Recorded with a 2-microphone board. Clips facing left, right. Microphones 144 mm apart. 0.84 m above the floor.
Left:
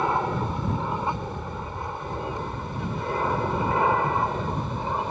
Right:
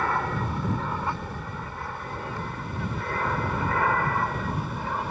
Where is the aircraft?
20° left (ahead or behind).